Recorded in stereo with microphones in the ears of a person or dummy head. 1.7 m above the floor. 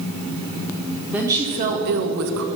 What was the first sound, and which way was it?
A woman speaking, centre (ahead or behind).